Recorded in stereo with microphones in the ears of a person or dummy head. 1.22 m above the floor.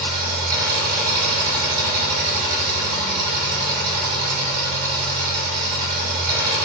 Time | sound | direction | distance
0.0 | an engine running | 50° right (ahead or behind) | 1.3 m